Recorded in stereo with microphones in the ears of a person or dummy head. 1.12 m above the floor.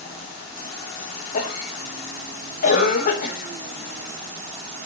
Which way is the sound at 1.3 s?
50° left (ahead or behind).